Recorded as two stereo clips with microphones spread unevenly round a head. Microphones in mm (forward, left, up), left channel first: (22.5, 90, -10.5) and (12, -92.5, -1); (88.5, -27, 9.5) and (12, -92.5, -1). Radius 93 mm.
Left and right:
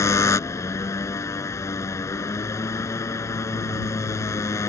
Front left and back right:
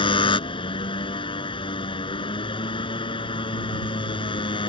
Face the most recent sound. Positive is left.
turn(degrees=10)